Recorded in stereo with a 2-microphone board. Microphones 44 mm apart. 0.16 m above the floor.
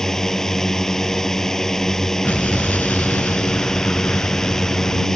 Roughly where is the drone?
Centre.